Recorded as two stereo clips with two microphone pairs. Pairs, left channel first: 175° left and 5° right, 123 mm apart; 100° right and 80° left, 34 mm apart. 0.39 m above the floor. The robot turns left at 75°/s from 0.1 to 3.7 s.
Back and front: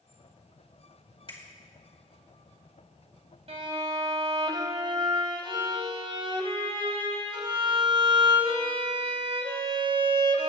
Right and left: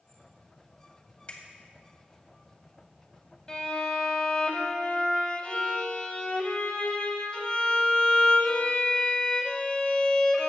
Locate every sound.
1.3 s a finger snap: 150° right, 2.5 m; by 1.5 s 160° right, 2.5 m
3.5 s a violin: 30° right, 1.2 m; by 10.5 s 45° right, 1.2 m